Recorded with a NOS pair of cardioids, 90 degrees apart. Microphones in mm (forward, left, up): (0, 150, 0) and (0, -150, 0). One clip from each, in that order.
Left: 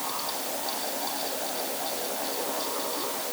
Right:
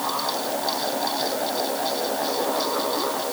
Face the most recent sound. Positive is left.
turn(degrees=-60)